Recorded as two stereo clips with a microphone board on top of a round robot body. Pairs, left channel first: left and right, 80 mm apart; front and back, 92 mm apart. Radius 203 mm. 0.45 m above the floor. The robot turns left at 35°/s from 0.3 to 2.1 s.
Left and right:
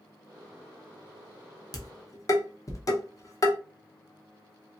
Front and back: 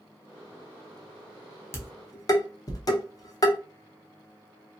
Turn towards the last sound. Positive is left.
turn(degrees=45)